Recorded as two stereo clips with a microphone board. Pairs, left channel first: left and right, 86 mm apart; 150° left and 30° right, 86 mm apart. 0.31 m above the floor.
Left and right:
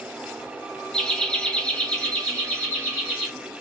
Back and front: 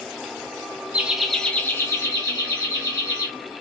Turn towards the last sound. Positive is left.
turn(degrees=170)